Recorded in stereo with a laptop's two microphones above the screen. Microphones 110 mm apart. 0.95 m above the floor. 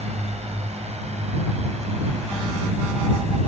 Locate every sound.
0.0 s a drone: 80° right